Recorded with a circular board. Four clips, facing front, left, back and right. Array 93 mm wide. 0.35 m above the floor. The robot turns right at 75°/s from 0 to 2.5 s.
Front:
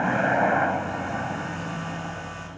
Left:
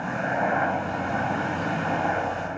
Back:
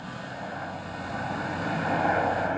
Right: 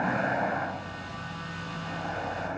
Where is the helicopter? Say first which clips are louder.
Left 2 dB, front 15 dB; 15° right; by 2.6 s 175° left.